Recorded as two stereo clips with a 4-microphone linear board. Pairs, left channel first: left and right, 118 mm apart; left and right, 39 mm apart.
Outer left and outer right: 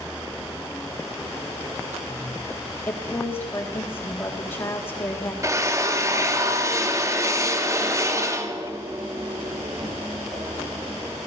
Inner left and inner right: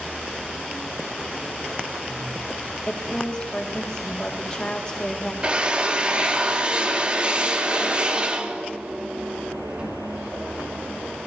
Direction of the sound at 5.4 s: 25° right (ahead or behind).